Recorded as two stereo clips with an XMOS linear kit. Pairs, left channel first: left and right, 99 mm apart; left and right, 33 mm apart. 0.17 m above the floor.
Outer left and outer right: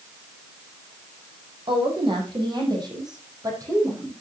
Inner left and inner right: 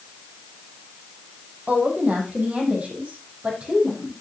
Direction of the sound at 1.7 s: 50° right (ahead or behind).